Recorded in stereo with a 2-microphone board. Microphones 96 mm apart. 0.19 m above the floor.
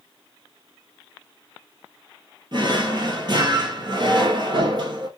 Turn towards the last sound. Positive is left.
turn(degrees=-50)  # may be behind; listen again after turning